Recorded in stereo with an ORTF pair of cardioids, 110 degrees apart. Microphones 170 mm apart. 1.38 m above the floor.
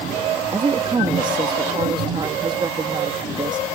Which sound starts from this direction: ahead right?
A woman speaking, at 0.5 s.